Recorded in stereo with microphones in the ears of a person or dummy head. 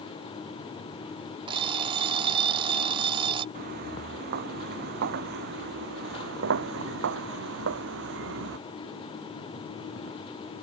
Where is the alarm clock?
30° right (ahead or behind).